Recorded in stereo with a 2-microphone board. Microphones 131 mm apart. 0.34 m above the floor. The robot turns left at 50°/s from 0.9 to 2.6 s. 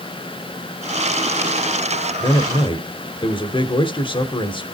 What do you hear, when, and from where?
2.2 s a man speaking: 35° left (ahead or behind), 1.2 m; by 4.7 s 40° left (ahead or behind), 1.2 m